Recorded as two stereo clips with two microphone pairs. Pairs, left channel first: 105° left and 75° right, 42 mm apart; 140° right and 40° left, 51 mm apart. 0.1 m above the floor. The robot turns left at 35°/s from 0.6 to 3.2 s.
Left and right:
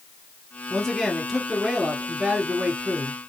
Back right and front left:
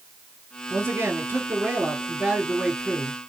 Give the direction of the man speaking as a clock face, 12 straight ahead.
11 o'clock.